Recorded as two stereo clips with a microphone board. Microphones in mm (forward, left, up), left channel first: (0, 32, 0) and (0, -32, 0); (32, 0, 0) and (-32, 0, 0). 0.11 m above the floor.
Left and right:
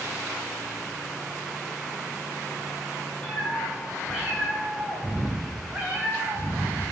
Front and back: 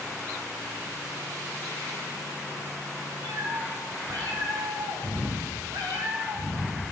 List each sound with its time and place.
3.2 s a cat meowing: 170° left, 4.5 m; by 6.9 s 130° right, 2.5 m